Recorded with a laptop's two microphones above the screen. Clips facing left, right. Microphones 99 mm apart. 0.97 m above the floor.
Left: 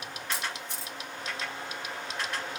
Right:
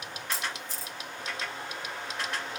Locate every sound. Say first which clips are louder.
0.3 s a camera shutter: even; 65° left (ahead or behind), 1.9 m